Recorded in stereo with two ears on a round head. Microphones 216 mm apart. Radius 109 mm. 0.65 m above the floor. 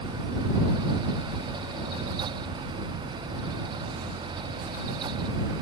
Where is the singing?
I don't hear singing.